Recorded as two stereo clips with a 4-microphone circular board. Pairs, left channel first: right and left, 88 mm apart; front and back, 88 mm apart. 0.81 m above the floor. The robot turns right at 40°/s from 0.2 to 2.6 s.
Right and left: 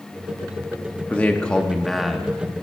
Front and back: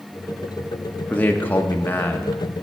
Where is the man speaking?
40° right, 0.5 m; by 2.6 s 20° left, 0.5 m.